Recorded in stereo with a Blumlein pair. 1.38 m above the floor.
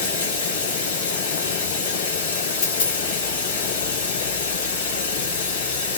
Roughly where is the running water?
Ahead left.